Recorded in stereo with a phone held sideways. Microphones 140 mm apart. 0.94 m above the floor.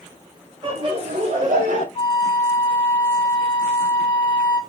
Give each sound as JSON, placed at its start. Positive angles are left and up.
{"t": 0.6, "sound": "laughter", "side_deg": -40, "distance_m": 1.5}
{"t": 1.9, "sound": "a flute", "side_deg": 35, "distance_m": 0.8}